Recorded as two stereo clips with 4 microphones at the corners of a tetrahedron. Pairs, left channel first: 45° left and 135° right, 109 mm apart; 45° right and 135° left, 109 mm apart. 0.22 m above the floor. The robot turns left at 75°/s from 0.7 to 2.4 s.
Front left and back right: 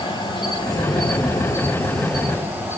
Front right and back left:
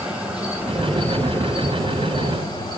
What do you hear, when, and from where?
0.0 s an insect: 55° left, 2.5 m; by 2.8 s 70° right, 2.5 m